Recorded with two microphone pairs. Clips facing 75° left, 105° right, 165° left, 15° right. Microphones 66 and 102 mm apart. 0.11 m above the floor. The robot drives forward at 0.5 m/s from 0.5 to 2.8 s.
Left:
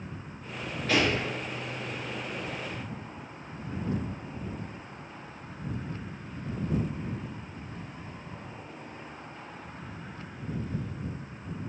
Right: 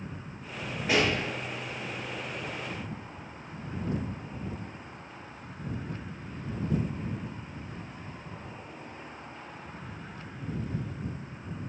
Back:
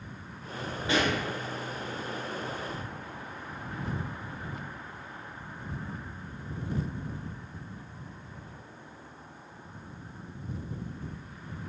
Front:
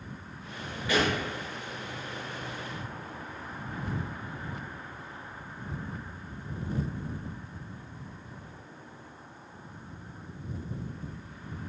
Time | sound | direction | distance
0.9 | a pop | 160° right | 1.6 m